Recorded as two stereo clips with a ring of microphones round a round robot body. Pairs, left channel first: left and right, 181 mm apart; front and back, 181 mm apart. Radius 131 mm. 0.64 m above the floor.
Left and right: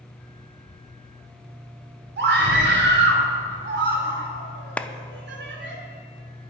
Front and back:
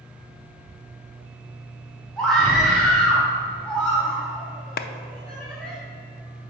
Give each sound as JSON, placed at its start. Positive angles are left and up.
{"t": 2.2, "sound": "a scream", "azimuth_deg": -85, "distance_m": 2.0}
{"t": 4.8, "sound": "a clap", "azimuth_deg": 10, "distance_m": 0.5}